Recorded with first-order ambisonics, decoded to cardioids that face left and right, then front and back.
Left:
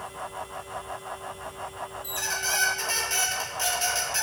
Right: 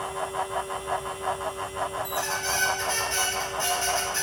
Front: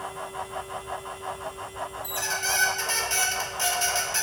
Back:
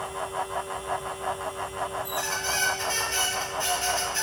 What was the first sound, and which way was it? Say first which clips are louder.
A squeak: right 1 dB, front 5 dB; 35° left.